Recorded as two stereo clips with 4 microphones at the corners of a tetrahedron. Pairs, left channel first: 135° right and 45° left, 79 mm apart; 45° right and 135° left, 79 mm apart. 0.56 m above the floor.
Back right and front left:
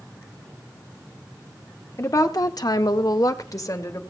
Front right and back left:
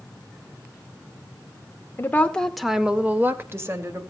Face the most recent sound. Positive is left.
turn(degrees=180)